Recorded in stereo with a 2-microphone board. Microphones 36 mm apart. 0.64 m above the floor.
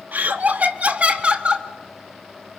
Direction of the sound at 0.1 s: 55° right (ahead or behind).